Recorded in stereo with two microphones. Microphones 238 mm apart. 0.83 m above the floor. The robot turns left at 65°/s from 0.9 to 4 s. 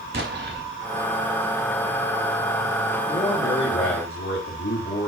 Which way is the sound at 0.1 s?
50° right (ahead or behind).